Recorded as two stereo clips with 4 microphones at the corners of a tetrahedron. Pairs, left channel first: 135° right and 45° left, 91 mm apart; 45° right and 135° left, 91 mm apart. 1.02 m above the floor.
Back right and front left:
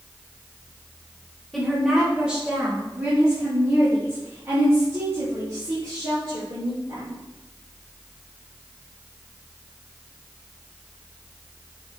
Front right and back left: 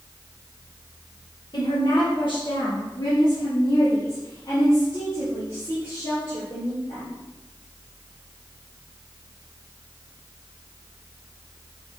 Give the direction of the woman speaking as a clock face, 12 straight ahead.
2 o'clock.